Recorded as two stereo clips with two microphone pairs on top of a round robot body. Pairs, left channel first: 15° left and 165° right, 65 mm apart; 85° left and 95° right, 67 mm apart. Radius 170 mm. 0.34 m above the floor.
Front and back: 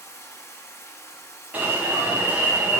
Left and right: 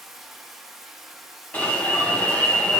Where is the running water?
Straight ahead, 1.6 m.